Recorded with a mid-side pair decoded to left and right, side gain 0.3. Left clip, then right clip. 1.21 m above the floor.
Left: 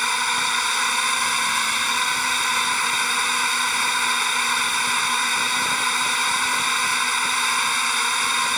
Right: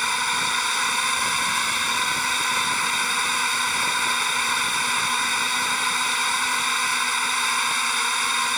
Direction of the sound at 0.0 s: 20° left.